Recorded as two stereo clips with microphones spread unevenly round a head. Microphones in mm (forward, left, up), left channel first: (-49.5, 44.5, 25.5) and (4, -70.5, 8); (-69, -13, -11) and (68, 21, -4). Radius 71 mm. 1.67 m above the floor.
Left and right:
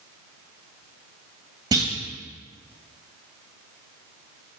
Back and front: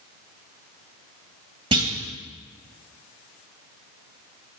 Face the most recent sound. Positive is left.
turn(degrees=-5)